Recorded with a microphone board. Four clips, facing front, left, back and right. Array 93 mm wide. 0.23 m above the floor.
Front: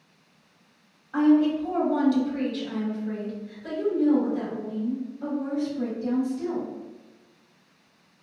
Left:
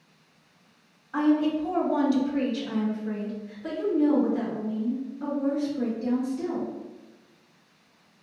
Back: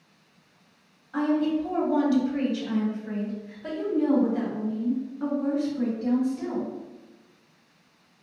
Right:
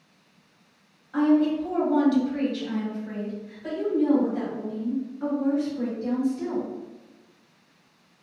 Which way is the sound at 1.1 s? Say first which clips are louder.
Right 2 dB, front 4 dB; 30° left.